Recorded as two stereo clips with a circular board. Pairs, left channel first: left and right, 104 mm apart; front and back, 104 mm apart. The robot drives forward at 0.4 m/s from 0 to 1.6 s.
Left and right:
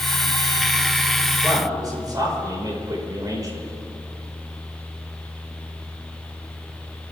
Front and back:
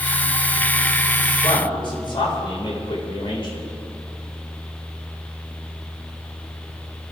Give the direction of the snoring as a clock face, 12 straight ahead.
No snoring in this recording.